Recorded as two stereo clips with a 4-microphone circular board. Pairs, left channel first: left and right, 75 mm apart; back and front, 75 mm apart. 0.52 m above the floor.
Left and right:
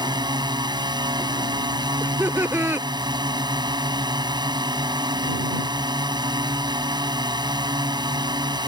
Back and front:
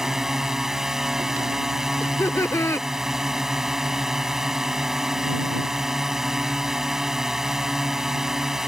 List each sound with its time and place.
0.0 s a drone: 85° right
2.0 s laughter: 140° right